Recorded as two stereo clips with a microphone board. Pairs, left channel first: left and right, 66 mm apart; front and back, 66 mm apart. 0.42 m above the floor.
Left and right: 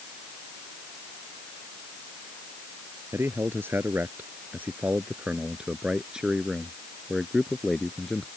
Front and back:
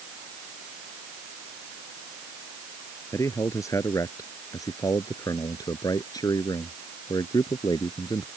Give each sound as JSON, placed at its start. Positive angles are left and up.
{"t": 3.1, "sound": "a man speaking", "azimuth_deg": -40}